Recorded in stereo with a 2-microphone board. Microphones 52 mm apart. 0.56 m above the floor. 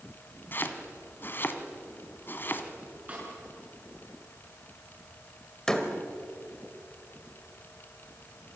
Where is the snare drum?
30° right (ahead or behind), 6.5 m.